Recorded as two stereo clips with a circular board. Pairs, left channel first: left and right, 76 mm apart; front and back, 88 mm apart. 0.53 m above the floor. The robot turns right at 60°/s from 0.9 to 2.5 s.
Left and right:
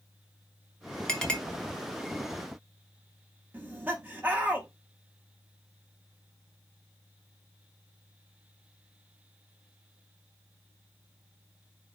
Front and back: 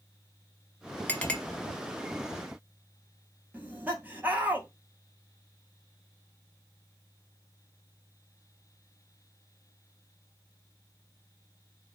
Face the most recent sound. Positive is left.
turn(degrees=-130)